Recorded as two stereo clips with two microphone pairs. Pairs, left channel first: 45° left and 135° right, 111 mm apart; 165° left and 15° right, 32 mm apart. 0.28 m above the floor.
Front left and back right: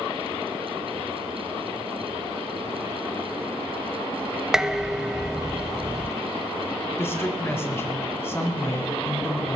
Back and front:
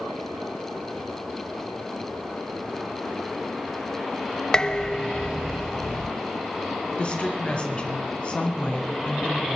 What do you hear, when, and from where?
4.5 s dishes clattering: 145° left, 0.6 m
7.0 s a woman speaking: 110° left, 3 m